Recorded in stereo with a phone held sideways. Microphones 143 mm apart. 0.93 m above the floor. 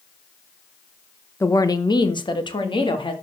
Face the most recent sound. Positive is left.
turn(degrees=35)  # may be behind; listen again after turning